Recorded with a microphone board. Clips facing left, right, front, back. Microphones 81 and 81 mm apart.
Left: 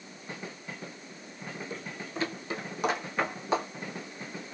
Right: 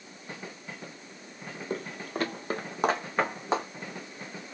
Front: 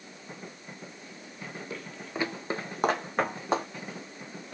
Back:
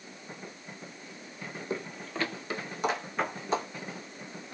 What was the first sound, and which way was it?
Footsteps, 125° right.